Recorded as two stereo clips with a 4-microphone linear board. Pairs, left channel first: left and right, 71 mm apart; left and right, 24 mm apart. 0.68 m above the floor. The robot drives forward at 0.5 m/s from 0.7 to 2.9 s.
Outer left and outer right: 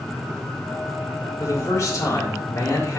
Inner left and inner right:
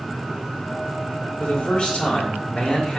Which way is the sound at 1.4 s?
50° left (ahead or behind).